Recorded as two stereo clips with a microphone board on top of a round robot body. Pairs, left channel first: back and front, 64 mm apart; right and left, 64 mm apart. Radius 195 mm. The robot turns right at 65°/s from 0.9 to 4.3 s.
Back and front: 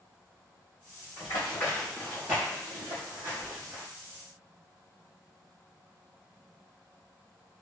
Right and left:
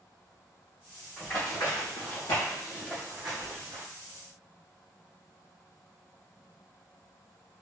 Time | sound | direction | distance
1.2 | running footsteps | 165° right | 2.0 m